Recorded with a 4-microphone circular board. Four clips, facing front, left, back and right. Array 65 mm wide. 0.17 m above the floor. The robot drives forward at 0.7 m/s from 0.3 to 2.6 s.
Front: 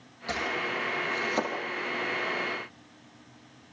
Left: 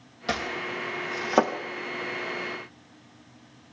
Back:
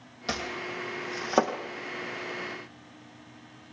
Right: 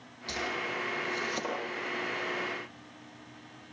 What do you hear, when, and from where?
0.3 s chopping: 110° left, 4 m; by 1.5 s 120° left, 4.5 m